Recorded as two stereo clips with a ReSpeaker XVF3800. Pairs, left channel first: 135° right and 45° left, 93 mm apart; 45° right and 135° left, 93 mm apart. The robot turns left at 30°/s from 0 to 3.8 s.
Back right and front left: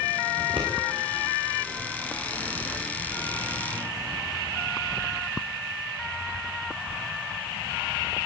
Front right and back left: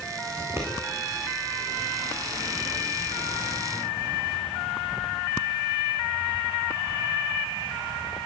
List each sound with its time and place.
0.4 s scissors: 80° left, 9.5 m; by 0.7 s 70° left, 9.5 m